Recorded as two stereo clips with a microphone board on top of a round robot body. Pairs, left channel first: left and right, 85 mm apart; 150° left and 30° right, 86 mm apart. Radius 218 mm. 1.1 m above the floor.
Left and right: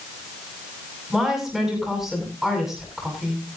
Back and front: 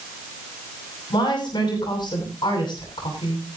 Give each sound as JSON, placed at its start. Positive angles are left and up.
{"t": 1.1, "sound": "a woman speaking", "azimuth_deg": -175, "distance_m": 10.0}